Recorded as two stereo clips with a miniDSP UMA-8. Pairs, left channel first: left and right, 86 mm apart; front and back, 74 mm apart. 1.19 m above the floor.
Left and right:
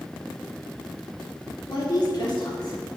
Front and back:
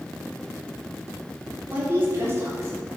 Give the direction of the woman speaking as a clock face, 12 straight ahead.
8 o'clock.